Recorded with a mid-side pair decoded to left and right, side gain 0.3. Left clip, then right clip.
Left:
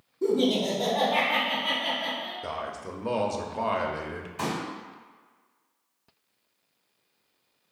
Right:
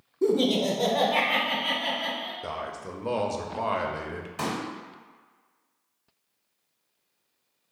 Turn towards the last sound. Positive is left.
turn(degrees=-70)